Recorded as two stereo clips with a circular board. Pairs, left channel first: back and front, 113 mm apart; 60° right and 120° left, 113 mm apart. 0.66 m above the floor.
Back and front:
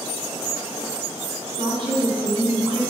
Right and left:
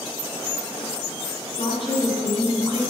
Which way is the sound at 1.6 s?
35° right.